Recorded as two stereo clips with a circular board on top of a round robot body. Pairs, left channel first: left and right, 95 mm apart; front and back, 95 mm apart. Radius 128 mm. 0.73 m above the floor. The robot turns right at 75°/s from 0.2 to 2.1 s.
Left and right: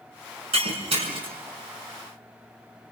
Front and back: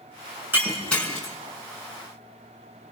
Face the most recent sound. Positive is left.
turn(degrees=10)